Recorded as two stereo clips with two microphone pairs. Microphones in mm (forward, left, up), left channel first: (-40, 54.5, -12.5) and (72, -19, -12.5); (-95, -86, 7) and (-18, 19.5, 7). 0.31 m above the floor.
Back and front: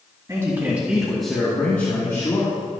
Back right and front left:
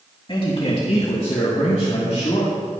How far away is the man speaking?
About 2.5 m.